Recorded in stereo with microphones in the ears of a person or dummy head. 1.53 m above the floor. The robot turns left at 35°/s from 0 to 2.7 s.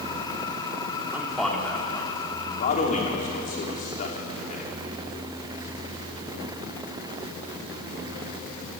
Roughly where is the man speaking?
Centre.